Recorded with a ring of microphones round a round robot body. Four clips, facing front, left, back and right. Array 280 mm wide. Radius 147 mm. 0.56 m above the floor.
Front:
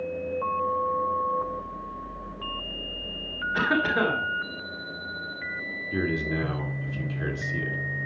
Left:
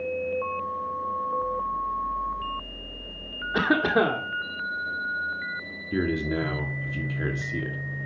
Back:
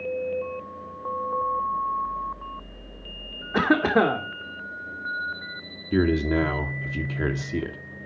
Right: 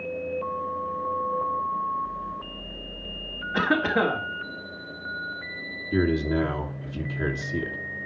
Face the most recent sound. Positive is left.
turn(degrees=180)